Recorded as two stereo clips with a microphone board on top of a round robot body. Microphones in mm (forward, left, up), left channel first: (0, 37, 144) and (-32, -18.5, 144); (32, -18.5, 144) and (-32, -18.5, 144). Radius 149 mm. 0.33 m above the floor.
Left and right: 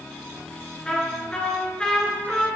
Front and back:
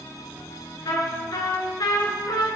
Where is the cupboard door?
No cupboard door in this recording.